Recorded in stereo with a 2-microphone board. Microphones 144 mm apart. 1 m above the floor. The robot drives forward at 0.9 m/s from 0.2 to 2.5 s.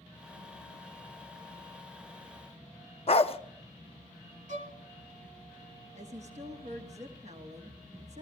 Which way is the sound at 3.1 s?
45° left (ahead or behind).